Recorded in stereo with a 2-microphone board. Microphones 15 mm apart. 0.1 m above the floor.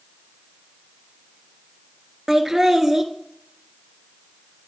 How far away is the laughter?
About 1.3 m.